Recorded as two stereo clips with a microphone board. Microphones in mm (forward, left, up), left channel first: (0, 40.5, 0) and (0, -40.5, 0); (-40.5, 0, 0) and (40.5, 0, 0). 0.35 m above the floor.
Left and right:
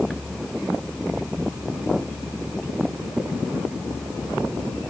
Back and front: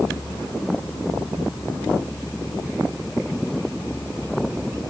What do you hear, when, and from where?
Only background noise.